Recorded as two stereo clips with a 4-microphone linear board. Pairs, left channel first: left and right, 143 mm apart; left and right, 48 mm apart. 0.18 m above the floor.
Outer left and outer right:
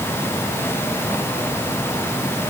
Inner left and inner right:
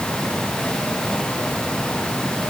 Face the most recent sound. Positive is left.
No sound to turn to.